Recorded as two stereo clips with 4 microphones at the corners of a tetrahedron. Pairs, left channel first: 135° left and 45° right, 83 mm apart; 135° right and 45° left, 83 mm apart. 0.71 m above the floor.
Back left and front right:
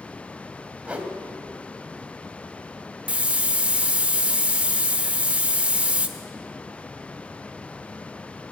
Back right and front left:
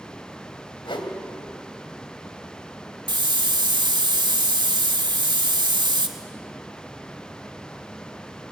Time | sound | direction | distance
0.8 | a whoosh | 120° right | 2.5 m
3.1 | a hiss | 30° left | 1.6 m